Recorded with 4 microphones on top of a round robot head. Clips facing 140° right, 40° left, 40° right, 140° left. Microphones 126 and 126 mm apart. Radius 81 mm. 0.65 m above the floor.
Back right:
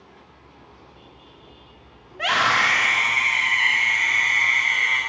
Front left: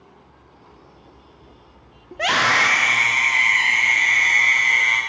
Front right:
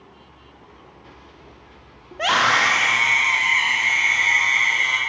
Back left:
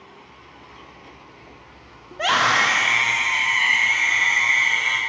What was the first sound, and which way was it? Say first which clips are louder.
A scream: front left 2 dB, even; 45° left.